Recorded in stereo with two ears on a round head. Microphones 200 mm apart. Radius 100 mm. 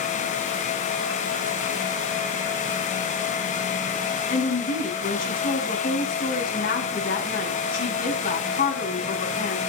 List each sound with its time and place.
4.3 s a woman speaking: 40° left (ahead or behind), 4.5 m